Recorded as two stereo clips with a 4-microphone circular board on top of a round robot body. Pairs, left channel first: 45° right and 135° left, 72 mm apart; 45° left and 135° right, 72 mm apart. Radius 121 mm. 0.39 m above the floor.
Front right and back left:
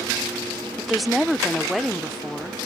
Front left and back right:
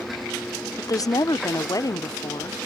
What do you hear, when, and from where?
0.8 s a woman speaking: 45° left